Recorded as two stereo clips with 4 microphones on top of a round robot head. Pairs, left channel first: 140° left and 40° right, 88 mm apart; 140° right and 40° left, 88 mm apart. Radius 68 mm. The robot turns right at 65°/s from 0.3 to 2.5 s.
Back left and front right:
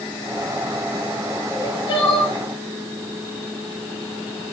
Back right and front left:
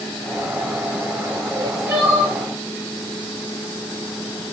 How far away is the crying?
About 9.5 m.